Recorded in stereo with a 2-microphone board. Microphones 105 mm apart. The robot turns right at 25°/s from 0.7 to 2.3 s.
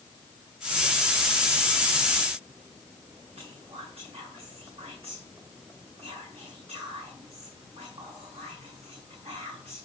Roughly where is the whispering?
Right.